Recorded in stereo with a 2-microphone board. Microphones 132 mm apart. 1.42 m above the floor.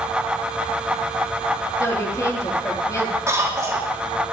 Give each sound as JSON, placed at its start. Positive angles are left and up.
{"t": 1.8, "sound": "a woman speaking", "side_deg": 20, "distance_m": 3.0}
{"t": 3.3, "sound": "a cough", "side_deg": -20, "distance_m": 4.0}